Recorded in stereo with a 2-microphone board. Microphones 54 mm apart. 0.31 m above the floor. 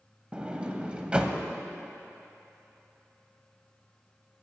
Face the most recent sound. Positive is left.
turn(degrees=-20)  # may be behind; listen again after turning